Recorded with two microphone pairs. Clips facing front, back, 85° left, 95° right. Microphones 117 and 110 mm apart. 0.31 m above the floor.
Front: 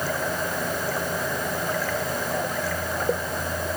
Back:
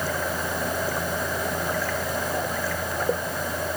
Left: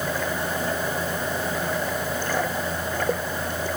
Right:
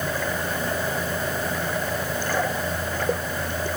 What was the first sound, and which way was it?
Only background noise.